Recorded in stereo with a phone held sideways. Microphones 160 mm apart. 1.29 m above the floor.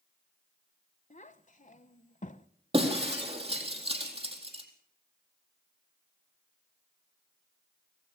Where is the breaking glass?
35° right (ahead or behind), 4 m.